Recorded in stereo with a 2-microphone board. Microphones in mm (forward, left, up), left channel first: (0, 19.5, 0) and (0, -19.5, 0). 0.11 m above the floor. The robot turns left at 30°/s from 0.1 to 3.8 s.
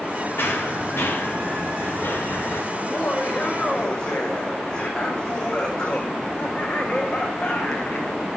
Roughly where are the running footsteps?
Left.